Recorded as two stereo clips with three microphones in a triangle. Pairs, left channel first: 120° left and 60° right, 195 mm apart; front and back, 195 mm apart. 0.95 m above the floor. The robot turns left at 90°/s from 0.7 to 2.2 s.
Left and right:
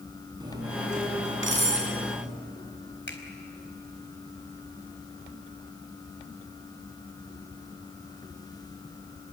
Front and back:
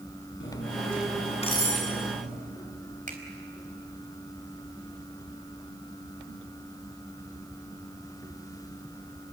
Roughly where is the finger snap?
Behind left.